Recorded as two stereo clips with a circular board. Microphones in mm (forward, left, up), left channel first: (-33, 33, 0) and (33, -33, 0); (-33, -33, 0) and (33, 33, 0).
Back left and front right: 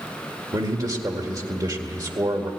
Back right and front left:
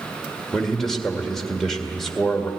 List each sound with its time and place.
0.5 s a man speaking: 50° right, 1.9 m